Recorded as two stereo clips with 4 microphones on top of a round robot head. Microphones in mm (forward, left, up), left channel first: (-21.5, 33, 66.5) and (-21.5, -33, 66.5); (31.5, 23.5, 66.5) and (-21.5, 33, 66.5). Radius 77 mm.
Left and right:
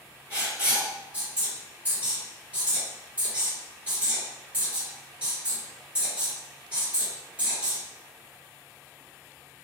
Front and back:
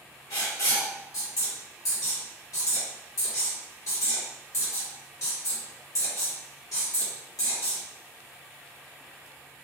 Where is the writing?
20° right, 1.3 m.